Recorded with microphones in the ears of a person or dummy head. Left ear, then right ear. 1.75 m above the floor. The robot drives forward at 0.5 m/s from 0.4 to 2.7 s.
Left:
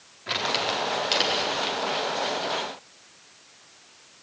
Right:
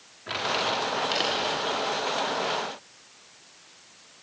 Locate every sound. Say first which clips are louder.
0.3 s crumpling: left 1 dB; 10° left (ahead or behind), 4 m; by 1.8 s 15° left (ahead or behind), 3.5 m